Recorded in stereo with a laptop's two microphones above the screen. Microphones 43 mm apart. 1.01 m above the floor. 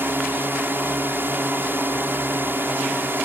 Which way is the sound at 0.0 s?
50° right (ahead or behind).